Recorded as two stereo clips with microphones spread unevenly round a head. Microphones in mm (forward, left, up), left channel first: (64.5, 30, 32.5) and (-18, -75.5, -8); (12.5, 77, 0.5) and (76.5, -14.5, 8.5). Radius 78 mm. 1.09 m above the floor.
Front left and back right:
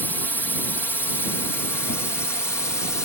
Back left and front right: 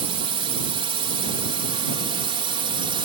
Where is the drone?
35° right; by 3.0 s 25° right.